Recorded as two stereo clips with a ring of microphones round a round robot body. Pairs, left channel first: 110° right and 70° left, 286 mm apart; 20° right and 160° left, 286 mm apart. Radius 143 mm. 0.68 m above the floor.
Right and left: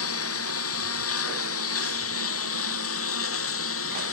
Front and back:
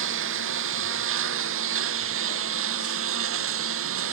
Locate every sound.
0.0 s a lawn mower: 155° right